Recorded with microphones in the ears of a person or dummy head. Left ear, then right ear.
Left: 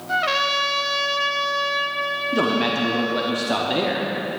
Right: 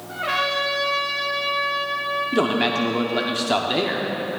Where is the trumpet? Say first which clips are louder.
Left 3 dB; 85° left, 0.7 m.